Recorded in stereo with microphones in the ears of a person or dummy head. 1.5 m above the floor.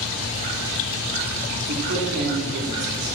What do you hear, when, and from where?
1.7 s a man speaking: 50° right (ahead or behind), 4 m